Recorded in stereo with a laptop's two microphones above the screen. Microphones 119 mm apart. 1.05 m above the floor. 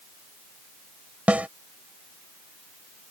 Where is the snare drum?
10° right (ahead or behind).